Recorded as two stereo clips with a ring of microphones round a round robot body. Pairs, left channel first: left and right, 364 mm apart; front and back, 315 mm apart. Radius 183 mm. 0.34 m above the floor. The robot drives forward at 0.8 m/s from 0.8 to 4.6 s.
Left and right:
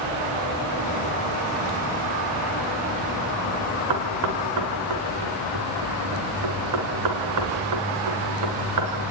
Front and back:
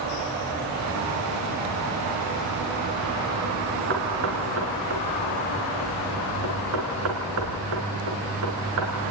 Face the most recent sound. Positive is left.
turn(degrees=-130)